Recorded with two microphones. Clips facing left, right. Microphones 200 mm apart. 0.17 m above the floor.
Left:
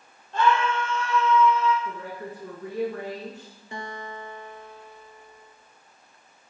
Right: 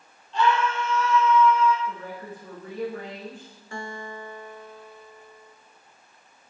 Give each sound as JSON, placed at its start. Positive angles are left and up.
{"t": 0.3, "sound": "a scream", "side_deg": 50, "distance_m": 5.0}
{"t": 1.9, "sound": "a woman speaking", "side_deg": 80, "distance_m": 7.5}
{"t": 3.7, "sound": "a guitar", "side_deg": 20, "distance_m": 1.9}